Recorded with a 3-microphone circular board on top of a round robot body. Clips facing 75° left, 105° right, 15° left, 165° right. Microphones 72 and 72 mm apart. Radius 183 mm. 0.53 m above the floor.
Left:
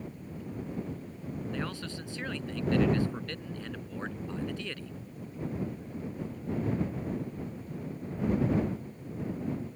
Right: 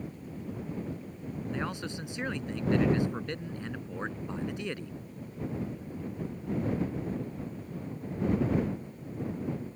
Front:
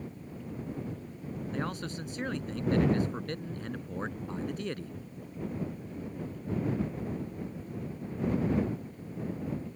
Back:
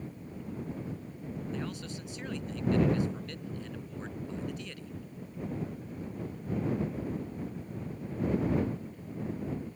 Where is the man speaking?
30° right.